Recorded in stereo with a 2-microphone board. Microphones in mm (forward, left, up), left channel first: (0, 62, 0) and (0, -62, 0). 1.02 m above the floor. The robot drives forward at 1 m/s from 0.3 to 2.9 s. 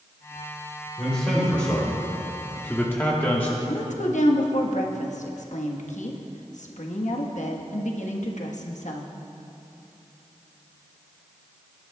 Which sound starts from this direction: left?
A woman speaking, at 3.7 s.